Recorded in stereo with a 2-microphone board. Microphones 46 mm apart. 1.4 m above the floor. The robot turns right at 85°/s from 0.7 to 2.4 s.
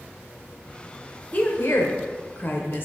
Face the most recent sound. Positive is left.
turn(degrees=130)